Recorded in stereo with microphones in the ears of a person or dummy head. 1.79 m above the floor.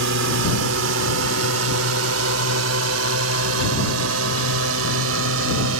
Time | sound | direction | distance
0.0 | a drone | 70° right (ahead or behind) | ?